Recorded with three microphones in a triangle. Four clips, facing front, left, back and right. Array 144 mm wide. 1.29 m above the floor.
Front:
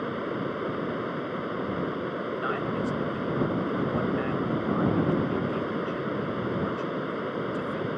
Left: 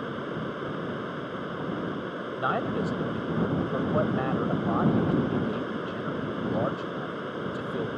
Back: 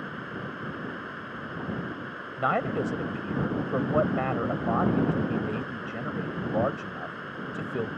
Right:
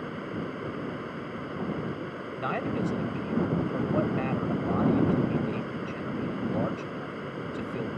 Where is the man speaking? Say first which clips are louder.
Left 2 dB, back 6 dB; 165° left.